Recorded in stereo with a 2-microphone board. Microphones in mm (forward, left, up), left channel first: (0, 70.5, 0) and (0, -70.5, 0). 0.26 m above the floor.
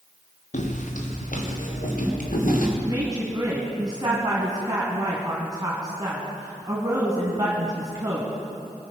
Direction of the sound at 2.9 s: 25° right (ahead or behind).